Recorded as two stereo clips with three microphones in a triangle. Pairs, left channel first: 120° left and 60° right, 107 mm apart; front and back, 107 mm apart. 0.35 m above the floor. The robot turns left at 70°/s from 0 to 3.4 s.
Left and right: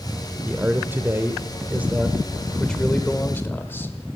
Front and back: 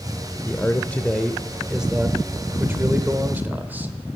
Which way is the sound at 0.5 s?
10° right.